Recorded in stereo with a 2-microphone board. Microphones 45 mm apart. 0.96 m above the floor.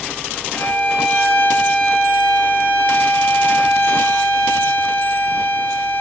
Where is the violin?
50° left (ahead or behind), 3.5 m.